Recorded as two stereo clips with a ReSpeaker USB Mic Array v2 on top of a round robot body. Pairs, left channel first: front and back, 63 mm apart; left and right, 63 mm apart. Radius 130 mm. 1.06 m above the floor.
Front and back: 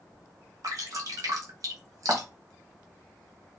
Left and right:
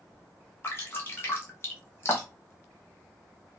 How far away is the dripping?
About 0.8 m.